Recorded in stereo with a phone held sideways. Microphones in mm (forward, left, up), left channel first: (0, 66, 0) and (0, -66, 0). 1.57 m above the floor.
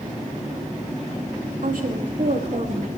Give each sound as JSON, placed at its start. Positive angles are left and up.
{"t": 1.6, "sound": "a woman speaking", "side_deg": -80, "distance_m": 2.5}